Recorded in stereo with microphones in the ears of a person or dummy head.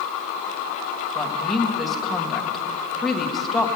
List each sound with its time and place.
1.1 s a woman speaking: 5° left (ahead or behind), 2 m